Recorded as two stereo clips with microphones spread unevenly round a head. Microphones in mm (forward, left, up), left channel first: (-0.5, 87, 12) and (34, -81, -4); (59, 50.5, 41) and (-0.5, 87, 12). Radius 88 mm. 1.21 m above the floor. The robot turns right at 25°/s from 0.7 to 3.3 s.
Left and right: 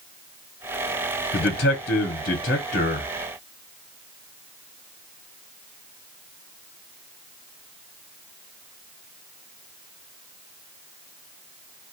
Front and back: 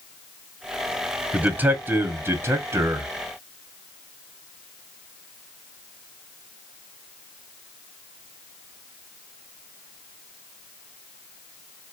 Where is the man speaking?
110° left, 0.7 m; by 3.1 s 155° left, 0.7 m.